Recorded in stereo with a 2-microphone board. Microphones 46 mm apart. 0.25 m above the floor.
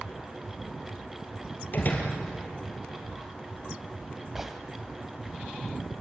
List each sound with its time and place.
1.7 s a door slam: 40° left (ahead or behind), 3.5 m
4.3 s a gunshot: 10° right (ahead or behind), 1.4 m